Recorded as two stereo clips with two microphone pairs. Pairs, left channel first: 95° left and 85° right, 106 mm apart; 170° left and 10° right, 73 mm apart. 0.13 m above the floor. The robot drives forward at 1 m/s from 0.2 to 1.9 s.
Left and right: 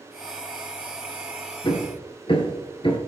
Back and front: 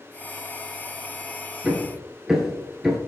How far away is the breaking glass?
No breaking glass in this recording.